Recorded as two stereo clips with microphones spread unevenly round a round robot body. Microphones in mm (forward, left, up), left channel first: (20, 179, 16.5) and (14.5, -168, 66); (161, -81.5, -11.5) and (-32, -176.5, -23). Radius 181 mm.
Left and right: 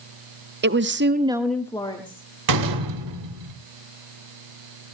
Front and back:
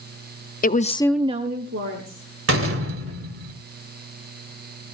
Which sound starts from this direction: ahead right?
A woman speaking, at 0.6 s.